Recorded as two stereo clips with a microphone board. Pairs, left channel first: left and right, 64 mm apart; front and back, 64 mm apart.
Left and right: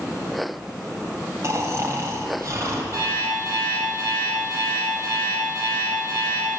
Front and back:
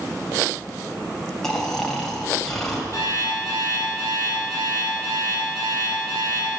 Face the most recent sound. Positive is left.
turn(degrees=-135)